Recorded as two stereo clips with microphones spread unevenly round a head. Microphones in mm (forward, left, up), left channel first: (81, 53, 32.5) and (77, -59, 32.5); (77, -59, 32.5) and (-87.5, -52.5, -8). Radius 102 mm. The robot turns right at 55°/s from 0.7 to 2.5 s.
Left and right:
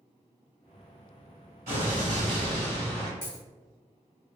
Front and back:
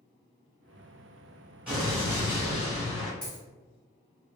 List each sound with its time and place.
1.7 s an explosion: 100° right, 1.8 m; by 3.1 s 55° right, 1.8 m
3.2 s a dropped coin: 50° left, 1.5 m